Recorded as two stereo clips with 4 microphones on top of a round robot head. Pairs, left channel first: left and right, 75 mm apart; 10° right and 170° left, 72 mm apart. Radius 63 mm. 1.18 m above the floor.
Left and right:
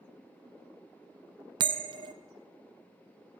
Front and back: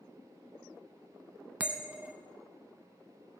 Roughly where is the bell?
Right.